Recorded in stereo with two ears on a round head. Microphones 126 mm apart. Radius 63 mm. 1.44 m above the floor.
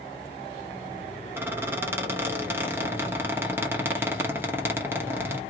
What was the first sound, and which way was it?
A squeak, 15° right (ahead or behind).